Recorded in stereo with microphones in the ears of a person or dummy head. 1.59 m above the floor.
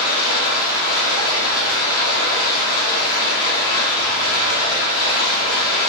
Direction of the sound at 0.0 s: 15° left (ahead or behind).